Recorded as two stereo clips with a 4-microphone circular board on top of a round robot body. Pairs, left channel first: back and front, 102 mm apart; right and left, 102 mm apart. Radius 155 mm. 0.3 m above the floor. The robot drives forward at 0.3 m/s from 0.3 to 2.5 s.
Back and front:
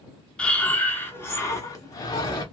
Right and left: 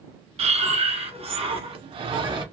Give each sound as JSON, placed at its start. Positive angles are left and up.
{"t": 0.4, "sound": "breathing", "azimuth_deg": 100, "distance_m": 0.9}